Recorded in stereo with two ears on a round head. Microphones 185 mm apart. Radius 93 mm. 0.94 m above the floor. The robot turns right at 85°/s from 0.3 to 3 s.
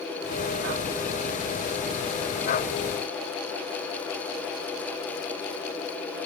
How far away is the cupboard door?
No cupboard door in this recording.